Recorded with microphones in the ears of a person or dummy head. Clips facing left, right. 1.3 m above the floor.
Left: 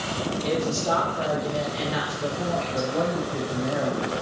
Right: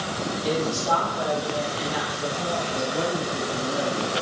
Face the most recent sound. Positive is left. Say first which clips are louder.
# left 2 dB
turn(degrees=55)  # may be behind; listen again after turning